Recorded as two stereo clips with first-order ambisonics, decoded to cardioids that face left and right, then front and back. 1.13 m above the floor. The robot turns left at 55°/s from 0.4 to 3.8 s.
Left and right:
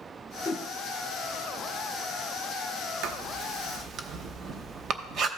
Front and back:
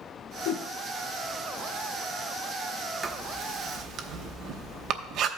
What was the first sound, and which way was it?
A whoosh, 30° left.